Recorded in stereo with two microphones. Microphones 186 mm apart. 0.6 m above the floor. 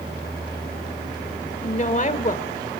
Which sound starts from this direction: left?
A woman speaking, at 1.6 s.